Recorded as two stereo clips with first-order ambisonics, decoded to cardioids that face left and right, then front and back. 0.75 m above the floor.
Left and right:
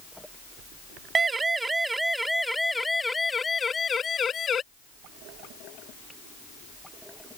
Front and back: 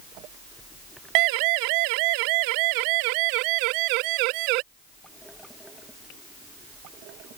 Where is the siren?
165° right; by 4.6 s 155° left.